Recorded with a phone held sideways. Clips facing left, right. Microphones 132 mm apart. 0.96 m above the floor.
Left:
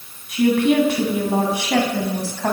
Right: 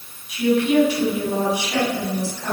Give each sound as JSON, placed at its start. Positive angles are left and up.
{"t": 0.3, "sound": "a woman speaking", "side_deg": 55, "distance_m": 9.0}